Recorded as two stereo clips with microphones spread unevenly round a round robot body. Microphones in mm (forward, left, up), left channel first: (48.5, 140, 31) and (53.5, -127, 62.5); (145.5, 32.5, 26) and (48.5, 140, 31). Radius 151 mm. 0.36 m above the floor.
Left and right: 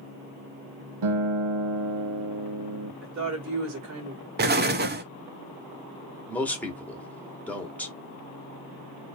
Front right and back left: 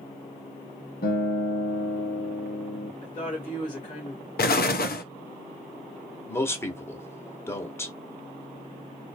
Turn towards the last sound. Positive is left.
turn(degrees=15)